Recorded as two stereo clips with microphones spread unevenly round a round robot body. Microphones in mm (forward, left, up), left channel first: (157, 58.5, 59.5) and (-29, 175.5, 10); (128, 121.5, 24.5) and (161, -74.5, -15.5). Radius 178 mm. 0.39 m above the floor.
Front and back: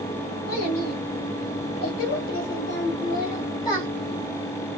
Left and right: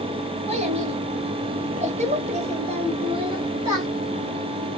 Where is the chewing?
I don't hear chewing.